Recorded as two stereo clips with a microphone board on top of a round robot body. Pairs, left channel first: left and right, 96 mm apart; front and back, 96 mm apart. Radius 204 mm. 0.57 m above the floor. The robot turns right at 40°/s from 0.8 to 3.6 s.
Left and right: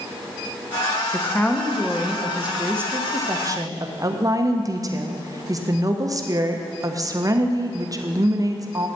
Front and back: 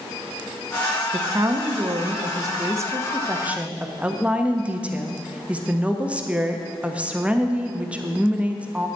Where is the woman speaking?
150° left, 1.4 m; by 8.9 s 110° right, 1.4 m.